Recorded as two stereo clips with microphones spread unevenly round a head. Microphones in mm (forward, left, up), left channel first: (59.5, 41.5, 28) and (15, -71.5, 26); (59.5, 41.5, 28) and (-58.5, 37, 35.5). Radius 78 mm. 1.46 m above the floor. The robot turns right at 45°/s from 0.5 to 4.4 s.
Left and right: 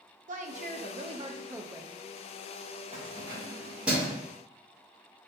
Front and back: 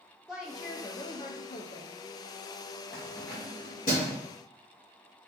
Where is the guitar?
I don't hear a guitar.